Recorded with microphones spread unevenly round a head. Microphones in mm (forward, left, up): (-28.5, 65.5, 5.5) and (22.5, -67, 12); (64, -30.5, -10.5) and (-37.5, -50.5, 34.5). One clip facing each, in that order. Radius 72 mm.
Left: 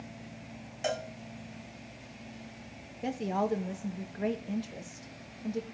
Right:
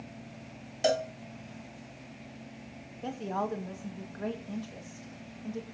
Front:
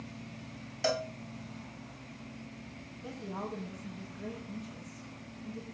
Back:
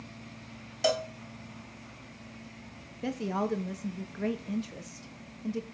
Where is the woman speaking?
175° right, 1.0 m.